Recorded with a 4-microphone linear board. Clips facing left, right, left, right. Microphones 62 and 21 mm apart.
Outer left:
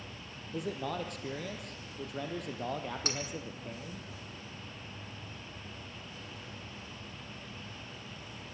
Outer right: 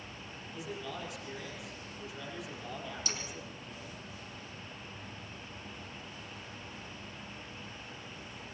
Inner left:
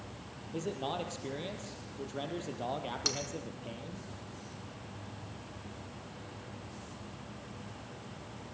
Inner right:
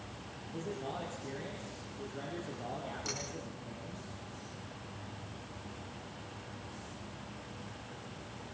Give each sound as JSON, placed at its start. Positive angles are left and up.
{"t": 0.5, "sound": "a man speaking", "side_deg": 55, "distance_m": 3.0}
{"t": 3.0, "sound": "cutlery clinking", "side_deg": 50, "distance_m": 2.5}